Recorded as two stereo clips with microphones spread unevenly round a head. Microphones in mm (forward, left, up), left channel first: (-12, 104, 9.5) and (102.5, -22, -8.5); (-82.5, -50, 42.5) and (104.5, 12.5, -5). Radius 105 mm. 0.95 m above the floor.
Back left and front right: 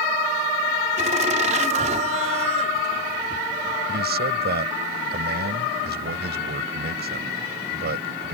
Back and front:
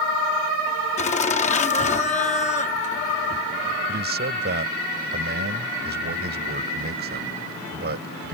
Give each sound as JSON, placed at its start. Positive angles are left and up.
{"t": 1.0, "sound": "laughter", "azimuth_deg": -105}
{"t": 3.9, "sound": "a man speaking", "azimuth_deg": -20}